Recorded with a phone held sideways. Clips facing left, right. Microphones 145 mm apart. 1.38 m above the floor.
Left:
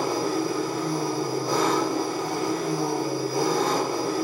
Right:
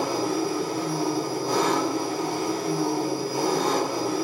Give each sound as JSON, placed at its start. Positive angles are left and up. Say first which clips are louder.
{"t": 0.0, "sound": "an engine running", "louder": "even", "side_deg": 35, "distance_m": 1.6}